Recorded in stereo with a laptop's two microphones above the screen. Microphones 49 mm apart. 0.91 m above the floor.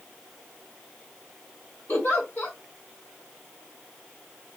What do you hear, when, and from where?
1.9 s a giggle: 60° left (ahead or behind), 1.4 m